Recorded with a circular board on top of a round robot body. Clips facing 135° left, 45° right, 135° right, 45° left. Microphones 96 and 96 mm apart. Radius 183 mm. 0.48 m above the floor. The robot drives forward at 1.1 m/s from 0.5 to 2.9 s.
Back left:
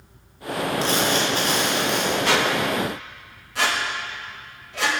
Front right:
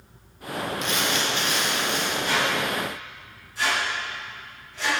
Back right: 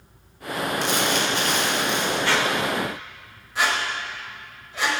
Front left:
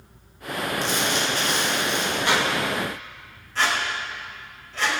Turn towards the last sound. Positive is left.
turn(degrees=145)